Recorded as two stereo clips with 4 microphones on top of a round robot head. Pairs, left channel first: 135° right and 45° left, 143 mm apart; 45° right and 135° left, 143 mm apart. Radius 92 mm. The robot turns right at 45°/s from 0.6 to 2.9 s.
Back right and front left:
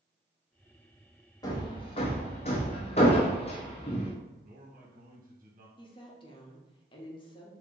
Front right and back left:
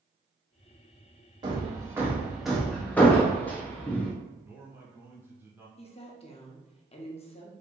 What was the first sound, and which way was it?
Hammering, 175° left.